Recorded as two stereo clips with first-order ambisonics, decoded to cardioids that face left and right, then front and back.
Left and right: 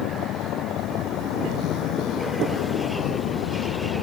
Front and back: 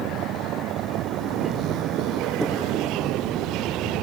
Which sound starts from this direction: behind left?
A vehicle, at 0.0 s.